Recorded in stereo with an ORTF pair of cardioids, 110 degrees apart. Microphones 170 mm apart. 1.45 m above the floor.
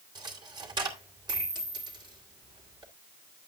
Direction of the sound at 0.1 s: 25° right.